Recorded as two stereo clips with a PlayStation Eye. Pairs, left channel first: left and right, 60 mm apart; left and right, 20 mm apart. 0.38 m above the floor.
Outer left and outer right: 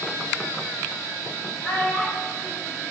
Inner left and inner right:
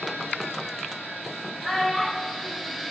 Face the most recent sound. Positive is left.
turn(degrees=25)  # may be behind; listen again after turning